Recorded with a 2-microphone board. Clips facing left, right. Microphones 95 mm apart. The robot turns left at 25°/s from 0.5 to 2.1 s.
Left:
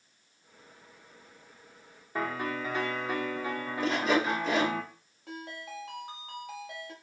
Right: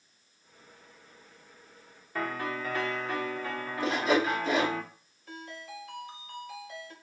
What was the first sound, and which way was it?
A piano, 15° left (ahead or behind).